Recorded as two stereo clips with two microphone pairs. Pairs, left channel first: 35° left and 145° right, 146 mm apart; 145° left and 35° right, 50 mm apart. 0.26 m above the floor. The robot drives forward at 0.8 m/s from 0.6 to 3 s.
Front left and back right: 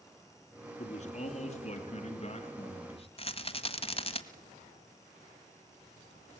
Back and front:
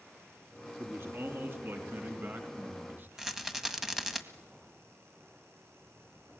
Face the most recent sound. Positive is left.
turn(degrees=50)